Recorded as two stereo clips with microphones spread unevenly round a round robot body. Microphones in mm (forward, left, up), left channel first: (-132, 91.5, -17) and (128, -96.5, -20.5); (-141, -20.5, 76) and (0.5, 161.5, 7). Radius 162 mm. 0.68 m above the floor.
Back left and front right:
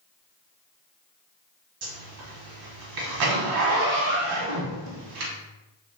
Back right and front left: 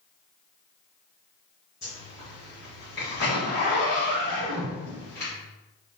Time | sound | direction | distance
1.8 | a zipper | 55° right | 1.2 m